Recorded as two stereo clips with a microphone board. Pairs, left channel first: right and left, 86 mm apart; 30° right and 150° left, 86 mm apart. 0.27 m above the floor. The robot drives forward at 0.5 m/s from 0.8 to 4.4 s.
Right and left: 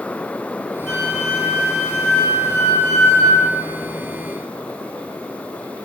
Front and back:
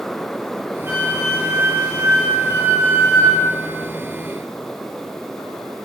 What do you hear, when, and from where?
0.9 s a flute: 165° right, 1.3 m; by 3.5 s 175° right, 2 m